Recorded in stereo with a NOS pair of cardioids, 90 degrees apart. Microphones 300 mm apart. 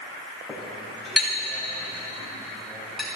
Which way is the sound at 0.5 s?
Straight ahead.